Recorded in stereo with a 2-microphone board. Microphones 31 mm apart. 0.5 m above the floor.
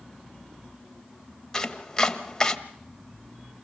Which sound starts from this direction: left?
Chopping, at 1.5 s.